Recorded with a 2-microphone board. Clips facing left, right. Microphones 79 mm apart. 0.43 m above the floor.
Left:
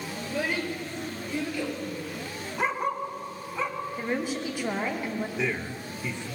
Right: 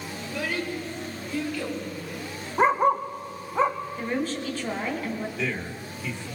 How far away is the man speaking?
About 1.5 m.